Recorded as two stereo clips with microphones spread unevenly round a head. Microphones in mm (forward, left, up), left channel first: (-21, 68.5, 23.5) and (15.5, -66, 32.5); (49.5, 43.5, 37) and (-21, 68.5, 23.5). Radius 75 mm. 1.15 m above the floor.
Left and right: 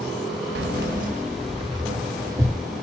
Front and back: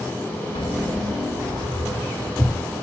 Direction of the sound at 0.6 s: 70° right.